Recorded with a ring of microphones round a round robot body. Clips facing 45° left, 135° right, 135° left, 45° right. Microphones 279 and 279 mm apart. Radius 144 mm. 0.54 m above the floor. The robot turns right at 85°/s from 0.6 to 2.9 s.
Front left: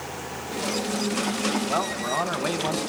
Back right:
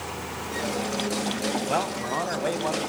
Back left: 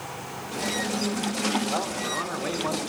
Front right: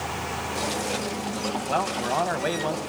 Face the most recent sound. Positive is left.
turn(degrees=10)